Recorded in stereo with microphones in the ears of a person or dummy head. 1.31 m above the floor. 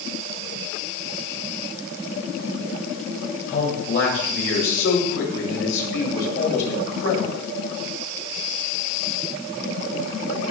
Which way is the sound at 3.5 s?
60° left (ahead or behind).